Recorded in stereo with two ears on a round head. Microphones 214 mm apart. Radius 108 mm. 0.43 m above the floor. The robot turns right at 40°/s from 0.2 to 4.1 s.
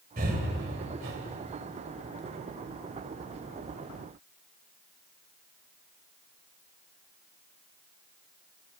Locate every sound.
0.2 s breathing: 40° right (ahead or behind), 2 m; by 1.2 s 60° right (ahead or behind), 2 m